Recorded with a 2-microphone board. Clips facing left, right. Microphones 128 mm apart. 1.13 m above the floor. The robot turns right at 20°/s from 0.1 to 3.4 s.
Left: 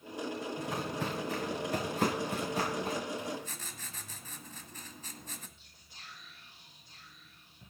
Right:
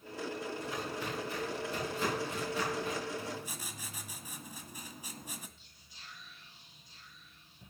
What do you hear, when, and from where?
0.6 s footsteps: 75° left (ahead or behind), 6 m; by 3.0 s 35° left (ahead or behind), 7.5 m
3.2 s writing: 10° right (ahead or behind), 1.2 m
5.6 s whispering: 55° left (ahead or behind), 5.5 m